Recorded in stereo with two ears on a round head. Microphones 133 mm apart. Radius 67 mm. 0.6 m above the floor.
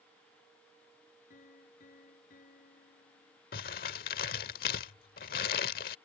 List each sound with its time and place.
1.3 s a piano: 60° left (ahead or behind)
3.5 s crumpling: 70° left (ahead or behind)